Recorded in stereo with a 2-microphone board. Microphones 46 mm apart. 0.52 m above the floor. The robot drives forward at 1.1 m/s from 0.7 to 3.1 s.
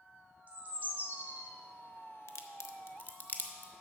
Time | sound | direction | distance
0.5 | a bird | 40° right (ahead or behind) | 1.3 m
2.3 | a crack | 75° left (ahead or behind) | 0.7 m